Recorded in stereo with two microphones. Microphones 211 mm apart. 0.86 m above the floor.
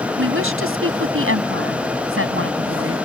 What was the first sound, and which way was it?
A woman speaking, 80° right.